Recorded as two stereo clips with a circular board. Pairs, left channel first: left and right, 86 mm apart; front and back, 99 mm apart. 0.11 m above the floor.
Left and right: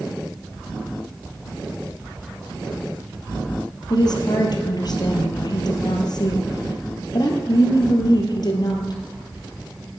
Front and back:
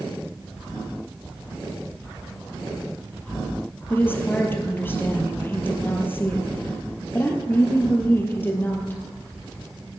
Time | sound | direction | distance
3.9 | a woman speaking | 65° left | 2.5 m